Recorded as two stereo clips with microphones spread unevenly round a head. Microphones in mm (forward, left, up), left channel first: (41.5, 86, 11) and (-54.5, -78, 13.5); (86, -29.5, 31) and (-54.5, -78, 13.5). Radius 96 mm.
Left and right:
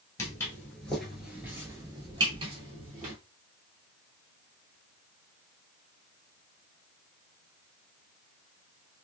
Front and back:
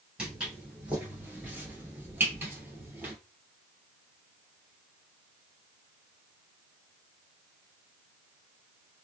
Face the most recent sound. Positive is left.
turn(degrees=-80)